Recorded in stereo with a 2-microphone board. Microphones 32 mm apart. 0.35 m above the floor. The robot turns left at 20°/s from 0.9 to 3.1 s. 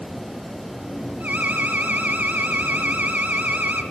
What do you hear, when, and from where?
1.2 s an alarm: 70° right, 1.1 m; by 3.8 s 105° right, 1.1 m